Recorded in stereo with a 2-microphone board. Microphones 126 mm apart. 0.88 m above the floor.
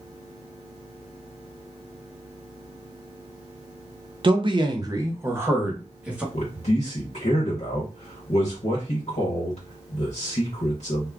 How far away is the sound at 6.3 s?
About 0.9 m.